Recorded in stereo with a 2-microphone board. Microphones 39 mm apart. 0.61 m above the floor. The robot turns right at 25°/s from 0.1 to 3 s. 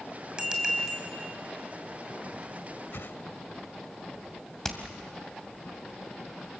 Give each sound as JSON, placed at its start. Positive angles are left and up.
{"t": 0.4, "sound": "a bicycle bell", "side_deg": -25, "distance_m": 2.5}
{"t": 2.9, "sound": "a whoosh", "side_deg": 75, "distance_m": 0.7}
{"t": 4.6, "sound": "hammering", "side_deg": 15, "distance_m": 2.0}